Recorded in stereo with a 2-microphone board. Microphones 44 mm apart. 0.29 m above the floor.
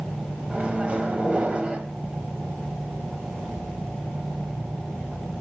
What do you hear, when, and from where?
0.5 s a microwave: 25° right (ahead or behind), 1.3 m